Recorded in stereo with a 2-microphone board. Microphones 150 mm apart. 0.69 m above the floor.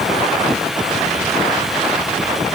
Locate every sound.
Only background noise.